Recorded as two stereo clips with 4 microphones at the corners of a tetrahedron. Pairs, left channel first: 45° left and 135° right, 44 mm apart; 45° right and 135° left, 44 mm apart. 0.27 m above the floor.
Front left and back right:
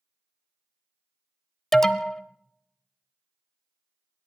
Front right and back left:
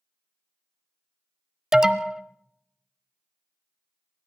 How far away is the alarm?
About 0.8 m.